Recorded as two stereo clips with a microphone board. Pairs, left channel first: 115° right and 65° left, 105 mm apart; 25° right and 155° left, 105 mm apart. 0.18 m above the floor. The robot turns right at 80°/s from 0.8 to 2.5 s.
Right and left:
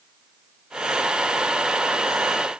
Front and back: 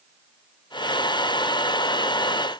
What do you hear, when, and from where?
Only background noise.